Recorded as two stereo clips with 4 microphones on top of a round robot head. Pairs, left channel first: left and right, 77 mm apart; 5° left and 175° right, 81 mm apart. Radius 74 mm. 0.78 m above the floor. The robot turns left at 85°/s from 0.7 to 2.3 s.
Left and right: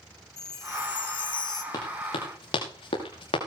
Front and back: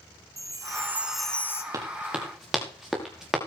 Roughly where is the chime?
Behind left.